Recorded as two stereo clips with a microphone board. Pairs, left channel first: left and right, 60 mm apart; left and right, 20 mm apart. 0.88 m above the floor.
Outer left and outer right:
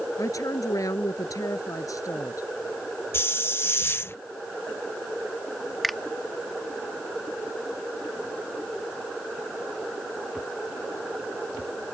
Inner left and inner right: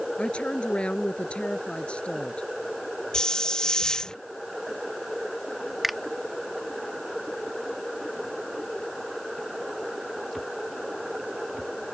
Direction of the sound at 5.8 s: Centre (ahead or behind).